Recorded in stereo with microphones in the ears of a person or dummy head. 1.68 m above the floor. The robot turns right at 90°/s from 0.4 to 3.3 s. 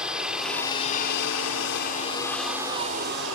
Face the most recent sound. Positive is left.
turn(degrees=-100)